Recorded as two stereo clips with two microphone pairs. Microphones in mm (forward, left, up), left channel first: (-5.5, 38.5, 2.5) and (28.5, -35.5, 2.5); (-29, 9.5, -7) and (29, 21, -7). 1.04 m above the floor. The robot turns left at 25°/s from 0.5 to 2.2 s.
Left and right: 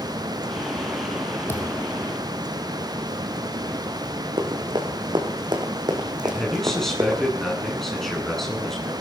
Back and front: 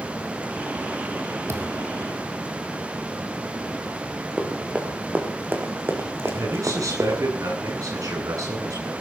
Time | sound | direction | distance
1.5 | a thud | 55° left | 4 m
4.4 | running footsteps | 60° right | 4.5 m
6.2 | a man speaking | 30° left | 9 m